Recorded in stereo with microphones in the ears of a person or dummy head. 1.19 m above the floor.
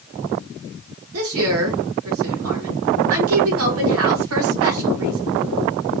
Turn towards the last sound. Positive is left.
turn(degrees=-80)